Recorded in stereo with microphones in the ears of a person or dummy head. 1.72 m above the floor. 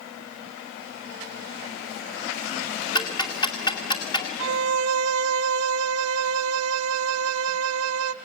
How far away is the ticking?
About 2 m.